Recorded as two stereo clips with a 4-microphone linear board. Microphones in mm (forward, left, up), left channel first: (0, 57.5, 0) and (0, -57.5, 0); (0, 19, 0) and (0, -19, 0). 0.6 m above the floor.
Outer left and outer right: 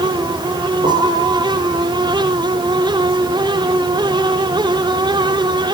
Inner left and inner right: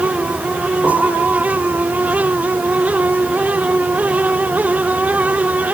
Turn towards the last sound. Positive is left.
turn(degrees=-60)  # may be behind; listen again after turning